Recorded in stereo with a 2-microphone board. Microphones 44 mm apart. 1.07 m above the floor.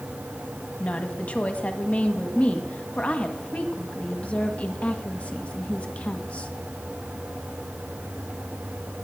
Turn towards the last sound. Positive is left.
turn(degrees=35)  # may be behind; listen again after turning